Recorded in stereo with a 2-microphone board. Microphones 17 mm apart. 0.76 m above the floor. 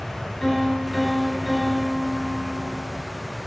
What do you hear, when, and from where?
0.4 s a piano: 20° left (ahead or behind), 1.6 m